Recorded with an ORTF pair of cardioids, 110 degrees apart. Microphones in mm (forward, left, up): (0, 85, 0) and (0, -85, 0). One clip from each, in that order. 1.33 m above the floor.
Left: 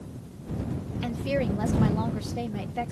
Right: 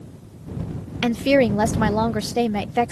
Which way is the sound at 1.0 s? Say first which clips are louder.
Right 11 dB; 65° right.